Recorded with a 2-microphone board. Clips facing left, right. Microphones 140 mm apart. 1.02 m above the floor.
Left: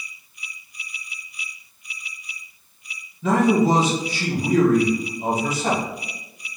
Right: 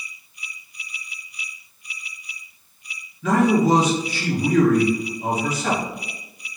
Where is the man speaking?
25° left (ahead or behind), 1.1 m.